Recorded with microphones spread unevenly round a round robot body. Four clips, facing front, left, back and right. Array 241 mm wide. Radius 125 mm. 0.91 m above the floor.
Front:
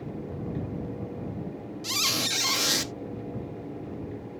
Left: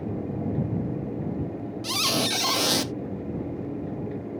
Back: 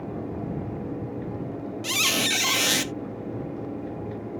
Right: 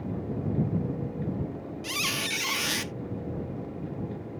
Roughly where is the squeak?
Left.